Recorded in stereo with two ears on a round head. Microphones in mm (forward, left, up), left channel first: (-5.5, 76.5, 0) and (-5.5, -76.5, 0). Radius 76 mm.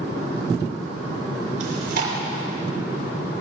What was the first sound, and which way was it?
Chewing, 65° right (ahead or behind).